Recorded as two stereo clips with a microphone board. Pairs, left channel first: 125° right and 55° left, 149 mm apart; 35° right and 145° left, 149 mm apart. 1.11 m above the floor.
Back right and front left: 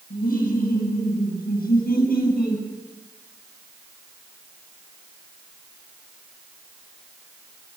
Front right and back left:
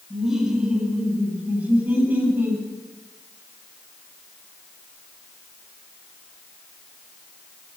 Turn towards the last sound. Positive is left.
turn(degrees=-140)